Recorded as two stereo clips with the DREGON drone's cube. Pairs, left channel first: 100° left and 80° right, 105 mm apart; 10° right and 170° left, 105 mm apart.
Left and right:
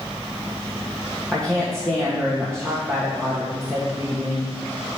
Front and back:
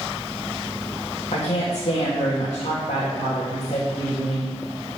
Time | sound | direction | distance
1.3 | a woman speaking | 15° left | 1.5 m